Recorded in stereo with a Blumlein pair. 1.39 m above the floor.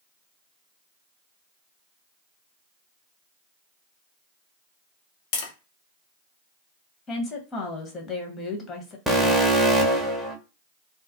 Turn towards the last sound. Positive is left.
turn(degrees=-5)